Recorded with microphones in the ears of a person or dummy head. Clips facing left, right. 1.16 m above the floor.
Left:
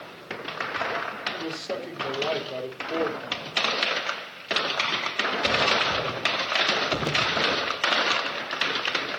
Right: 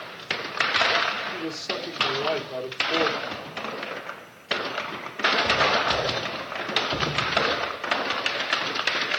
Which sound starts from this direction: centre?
A man speaking, at 1.3 s.